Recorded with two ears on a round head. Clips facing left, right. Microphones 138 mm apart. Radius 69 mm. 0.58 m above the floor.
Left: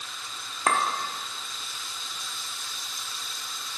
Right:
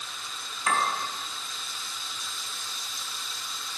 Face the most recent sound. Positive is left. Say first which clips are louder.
# left 2 dB
turn(degrees=45)  # may be behind; listen again after turning